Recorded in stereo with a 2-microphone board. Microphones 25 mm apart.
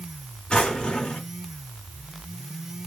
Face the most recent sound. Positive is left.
turn(degrees=30)  # may be behind; listen again after turning